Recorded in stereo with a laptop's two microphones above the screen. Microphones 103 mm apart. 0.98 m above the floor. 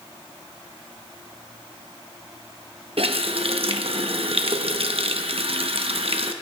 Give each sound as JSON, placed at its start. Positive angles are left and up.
{"t": 3.0, "sound": "a running tap", "side_deg": -65, "distance_m": 0.7}